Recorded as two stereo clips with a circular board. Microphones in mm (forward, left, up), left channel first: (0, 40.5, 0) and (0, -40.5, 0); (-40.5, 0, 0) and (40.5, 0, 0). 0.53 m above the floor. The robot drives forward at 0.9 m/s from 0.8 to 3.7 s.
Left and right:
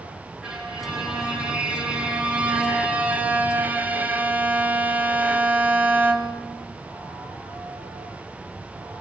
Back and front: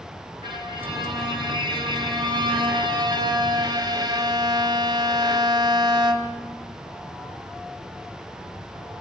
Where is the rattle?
No rattle in this recording.